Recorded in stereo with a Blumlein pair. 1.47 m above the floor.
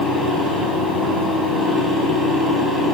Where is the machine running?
5° left, 4 m.